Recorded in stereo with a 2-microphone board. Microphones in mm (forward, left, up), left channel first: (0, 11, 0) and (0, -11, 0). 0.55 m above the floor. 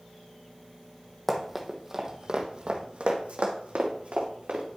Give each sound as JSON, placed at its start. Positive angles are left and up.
{"t": 1.3, "sound": "running footsteps", "side_deg": 5, "distance_m": 1.5}